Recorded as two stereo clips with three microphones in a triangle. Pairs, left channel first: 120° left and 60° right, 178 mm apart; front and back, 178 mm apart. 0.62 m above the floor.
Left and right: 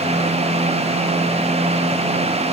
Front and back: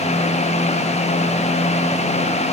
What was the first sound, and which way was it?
Only background noise.